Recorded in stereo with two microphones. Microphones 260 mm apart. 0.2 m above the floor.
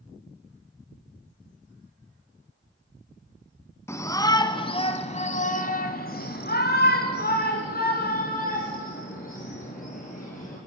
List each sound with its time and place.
3.9 s a shout: 10° left (ahead or behind), 2.0 m; by 10.6 s 30° left (ahead or behind), 4.5 m